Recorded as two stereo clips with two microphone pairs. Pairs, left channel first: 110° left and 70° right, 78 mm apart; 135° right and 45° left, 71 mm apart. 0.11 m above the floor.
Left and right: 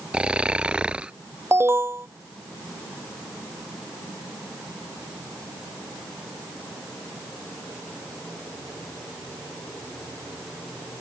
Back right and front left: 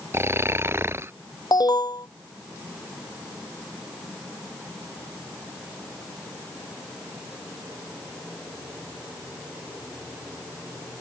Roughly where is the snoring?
Ahead.